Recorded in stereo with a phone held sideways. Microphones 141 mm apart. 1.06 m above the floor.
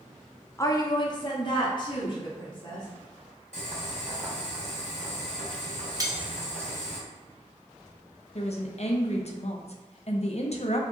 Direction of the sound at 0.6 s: 20° left (ahead or behind).